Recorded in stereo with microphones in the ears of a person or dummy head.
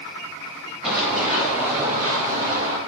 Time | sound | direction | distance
0.8 | running footsteps | centre (ahead or behind) | 3.5 m